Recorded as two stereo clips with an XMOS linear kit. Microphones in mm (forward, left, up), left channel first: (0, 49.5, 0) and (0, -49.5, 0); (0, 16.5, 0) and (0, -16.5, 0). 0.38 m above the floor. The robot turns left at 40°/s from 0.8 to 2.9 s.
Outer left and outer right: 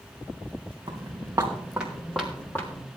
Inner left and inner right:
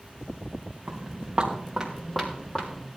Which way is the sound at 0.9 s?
50° right (ahead or behind).